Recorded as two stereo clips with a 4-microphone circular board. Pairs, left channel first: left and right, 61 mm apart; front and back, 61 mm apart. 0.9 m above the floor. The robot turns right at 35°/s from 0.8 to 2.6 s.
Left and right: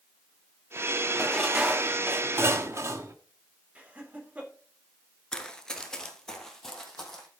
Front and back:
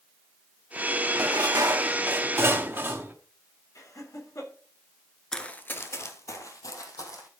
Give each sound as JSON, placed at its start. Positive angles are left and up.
{"t": 1.1, "sound": "dishes clattering", "azimuth_deg": 180, "distance_m": 1.1}
{"t": 3.8, "sound": "laughter", "azimuth_deg": -25, "distance_m": 3.5}
{"t": 5.3, "sound": "running footsteps", "azimuth_deg": 55, "distance_m": 0.8}